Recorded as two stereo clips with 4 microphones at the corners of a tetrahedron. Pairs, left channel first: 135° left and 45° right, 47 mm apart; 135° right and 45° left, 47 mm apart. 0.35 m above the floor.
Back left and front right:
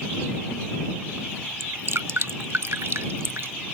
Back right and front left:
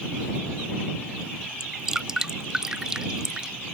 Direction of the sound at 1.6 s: 30° right.